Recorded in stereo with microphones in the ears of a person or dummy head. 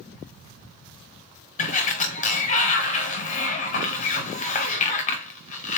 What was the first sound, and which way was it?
A sliding door, 40° left (ahead or behind).